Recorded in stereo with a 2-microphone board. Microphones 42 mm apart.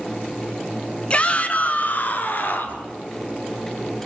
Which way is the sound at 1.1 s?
25° left (ahead or behind).